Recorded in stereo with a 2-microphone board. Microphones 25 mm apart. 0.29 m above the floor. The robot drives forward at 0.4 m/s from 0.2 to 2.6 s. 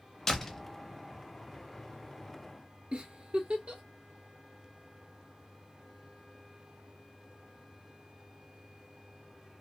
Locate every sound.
0.3 s a door slam: 20° left (ahead or behind), 0.7 m
2.9 s a giggle: 50° right (ahead or behind), 1.1 m